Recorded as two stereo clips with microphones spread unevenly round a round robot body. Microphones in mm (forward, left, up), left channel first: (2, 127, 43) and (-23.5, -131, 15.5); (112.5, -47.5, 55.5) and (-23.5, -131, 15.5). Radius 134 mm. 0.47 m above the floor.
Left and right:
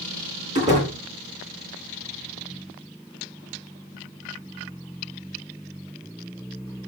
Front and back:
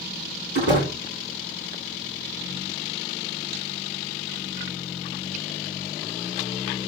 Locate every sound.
0.6 s a door slam: 160° right, 9.5 m